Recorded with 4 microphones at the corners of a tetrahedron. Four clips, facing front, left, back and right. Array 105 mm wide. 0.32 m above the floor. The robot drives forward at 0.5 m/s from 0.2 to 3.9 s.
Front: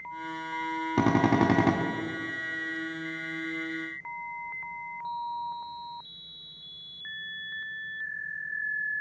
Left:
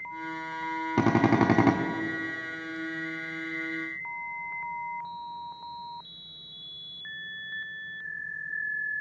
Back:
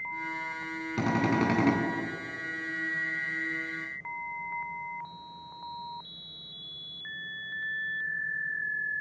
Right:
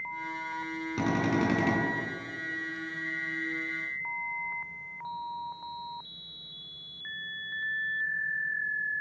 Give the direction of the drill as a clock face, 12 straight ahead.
10 o'clock.